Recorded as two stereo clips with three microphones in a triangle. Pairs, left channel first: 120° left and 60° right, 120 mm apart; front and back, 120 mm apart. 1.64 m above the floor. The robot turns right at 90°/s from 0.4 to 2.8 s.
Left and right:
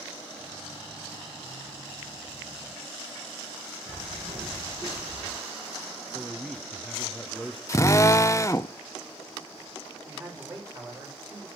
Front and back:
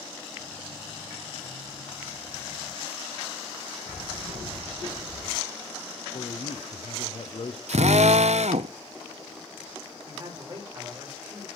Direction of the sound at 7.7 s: 175° right.